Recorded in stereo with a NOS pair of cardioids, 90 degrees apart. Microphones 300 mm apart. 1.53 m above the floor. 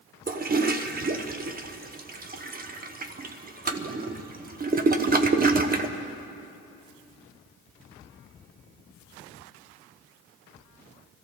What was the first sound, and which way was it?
A toilet flushing, 30° right.